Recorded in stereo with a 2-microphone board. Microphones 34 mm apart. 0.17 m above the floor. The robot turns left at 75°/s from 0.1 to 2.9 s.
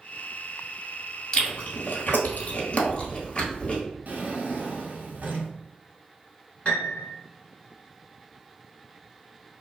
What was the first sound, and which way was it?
Chewing, 25° left (ahead or behind).